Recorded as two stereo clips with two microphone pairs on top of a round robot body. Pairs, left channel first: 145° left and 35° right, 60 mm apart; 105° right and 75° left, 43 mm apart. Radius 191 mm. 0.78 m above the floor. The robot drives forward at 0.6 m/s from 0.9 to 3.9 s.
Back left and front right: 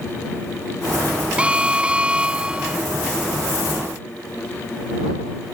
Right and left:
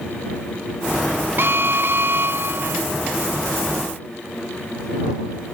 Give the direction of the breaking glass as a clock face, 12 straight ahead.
No breaking glass in this recording.